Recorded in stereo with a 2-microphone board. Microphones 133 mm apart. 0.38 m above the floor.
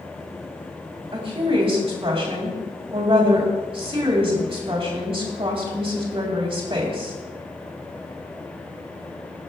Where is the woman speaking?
45° right (ahead or behind), 2.5 m.